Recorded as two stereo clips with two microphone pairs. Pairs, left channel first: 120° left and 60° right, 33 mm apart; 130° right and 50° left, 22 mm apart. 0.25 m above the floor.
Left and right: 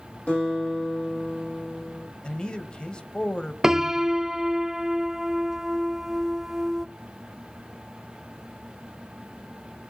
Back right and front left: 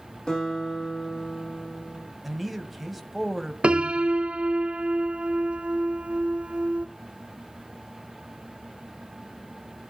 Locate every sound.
0.3 s a guitar: 165° left, 7 m
2.2 s a man speaking: 120° left, 1.0 m
3.6 s a piano: 15° left, 0.5 m